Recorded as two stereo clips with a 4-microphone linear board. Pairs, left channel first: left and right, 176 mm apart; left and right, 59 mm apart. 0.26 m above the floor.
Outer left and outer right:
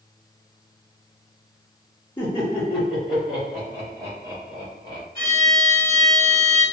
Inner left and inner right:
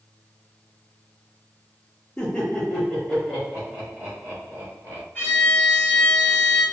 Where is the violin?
25° left (ahead or behind), 1.5 m.